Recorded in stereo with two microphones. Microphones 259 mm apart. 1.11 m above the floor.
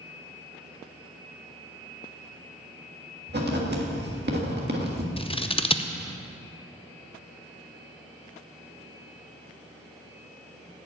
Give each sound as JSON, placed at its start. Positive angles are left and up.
{"t": 3.3, "sound": "writing", "side_deg": -40, "distance_m": 1.6}
{"t": 5.2, "sound": "scissors", "side_deg": 20, "distance_m": 0.6}